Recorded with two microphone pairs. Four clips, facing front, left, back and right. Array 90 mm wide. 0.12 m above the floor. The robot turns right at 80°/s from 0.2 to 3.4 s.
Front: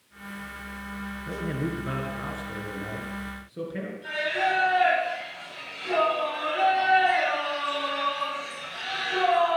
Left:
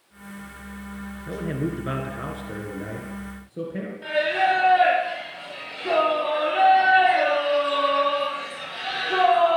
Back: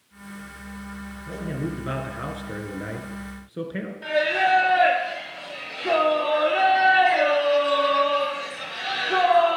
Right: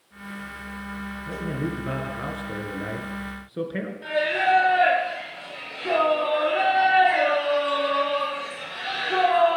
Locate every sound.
1.3 s a man speaking: 65° left, 1.7 m; by 3.9 s 125° right, 1.7 m
4.0 s singing: 155° left, 4.5 m